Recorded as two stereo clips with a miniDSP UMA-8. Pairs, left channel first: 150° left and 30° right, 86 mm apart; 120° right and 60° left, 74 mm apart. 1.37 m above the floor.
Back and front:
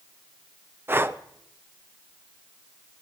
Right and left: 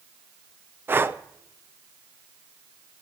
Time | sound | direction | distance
0.9 | breathing | 20° left | 0.5 m